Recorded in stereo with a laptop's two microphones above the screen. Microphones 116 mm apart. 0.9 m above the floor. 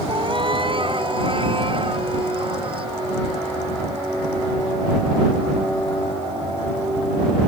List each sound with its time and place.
0.1 s a cat meowing: 45° right (ahead or behind); by 2.9 s 50° right (ahead or behind)